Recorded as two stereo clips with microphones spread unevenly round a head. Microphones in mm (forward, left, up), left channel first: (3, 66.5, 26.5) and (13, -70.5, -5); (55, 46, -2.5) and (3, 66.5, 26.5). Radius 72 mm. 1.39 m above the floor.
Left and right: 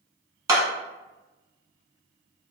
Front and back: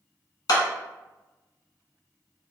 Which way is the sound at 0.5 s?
15° right.